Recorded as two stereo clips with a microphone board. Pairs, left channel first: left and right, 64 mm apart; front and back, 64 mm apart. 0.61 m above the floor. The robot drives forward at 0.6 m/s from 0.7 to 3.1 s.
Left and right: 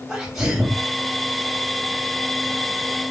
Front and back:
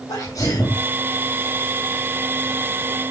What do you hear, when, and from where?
0.1 s a sneeze: 5° right, 4 m